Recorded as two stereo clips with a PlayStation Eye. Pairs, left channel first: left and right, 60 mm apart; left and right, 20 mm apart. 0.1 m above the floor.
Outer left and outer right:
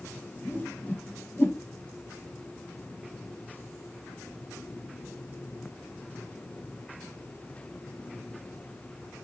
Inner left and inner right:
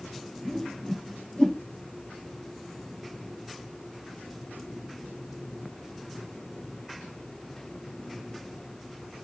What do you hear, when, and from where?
0.5 s a whoosh: 30° left (ahead or behind), 0.9 m